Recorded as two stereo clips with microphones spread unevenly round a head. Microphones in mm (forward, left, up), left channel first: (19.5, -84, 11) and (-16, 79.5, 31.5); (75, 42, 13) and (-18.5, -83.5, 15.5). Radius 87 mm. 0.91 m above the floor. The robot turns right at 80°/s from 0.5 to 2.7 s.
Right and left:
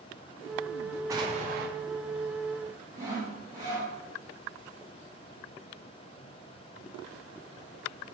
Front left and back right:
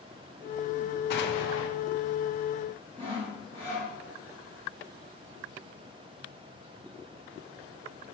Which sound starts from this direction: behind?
Sawing, at 3.0 s.